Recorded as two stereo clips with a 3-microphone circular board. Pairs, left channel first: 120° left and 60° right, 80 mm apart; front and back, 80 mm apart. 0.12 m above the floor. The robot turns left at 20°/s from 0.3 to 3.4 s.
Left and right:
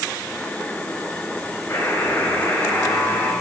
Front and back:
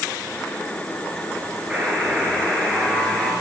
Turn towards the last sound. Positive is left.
turn(degrees=80)